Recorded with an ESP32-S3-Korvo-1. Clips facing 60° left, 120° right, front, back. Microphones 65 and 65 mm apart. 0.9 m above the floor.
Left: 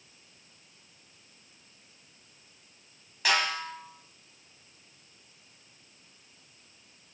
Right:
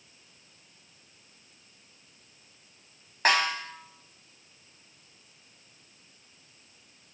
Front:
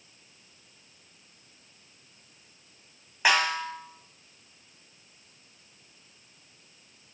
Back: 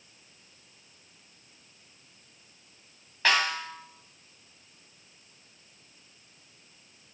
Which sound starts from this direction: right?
A snare drum, at 3.2 s.